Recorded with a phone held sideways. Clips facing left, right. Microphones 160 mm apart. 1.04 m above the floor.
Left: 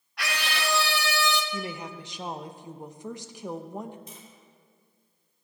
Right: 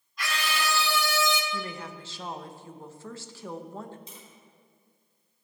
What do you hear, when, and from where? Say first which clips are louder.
0.2 s a scream: even; 70° left (ahead or behind), 2 m; by 1.4 s 65° left (ahead or behind), 1.4 m
1.5 s a woman speaking: left 2 dB; 15° left (ahead or behind), 0.7 m
4.1 s tapping: left 2 dB; 50° left (ahead or behind), 4 m